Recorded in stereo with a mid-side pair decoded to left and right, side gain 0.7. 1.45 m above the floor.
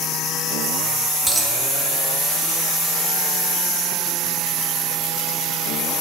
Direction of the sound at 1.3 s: 5° right.